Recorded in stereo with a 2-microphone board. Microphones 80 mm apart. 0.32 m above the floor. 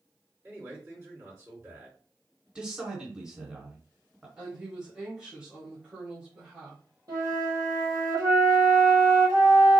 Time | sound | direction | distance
0.4 | a man speaking | 35° right (ahead or behind) | 2.5 m
2.5 | a man speaking | 10° right (ahead or behind) | 1.5 m
4.4 | a woman speaking | 15° right (ahead or behind) | 1.3 m
7.1 | a flute | 50° right (ahead or behind) | 2 m